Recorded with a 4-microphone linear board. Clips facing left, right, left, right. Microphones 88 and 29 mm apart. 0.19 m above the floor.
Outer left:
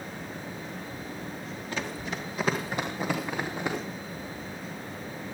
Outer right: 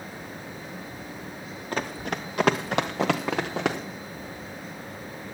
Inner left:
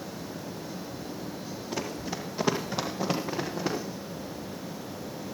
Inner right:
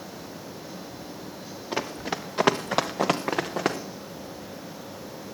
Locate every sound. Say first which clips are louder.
1.7 s running footsteps: outer right 5 dB, inner right 5 dB; 45° right (ahead or behind), 1.7 m; by 3.8 s 75° right (ahead or behind), 2.5 m